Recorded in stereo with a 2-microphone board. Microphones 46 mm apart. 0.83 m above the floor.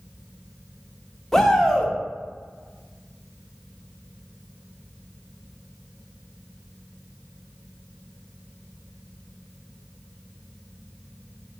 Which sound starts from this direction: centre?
A shout, at 1.3 s.